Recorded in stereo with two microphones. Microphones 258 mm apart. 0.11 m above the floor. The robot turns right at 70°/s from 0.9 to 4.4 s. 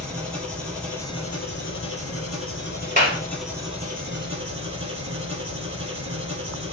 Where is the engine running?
5° left, 2 m; by 6.7 s 110° right, 2 m.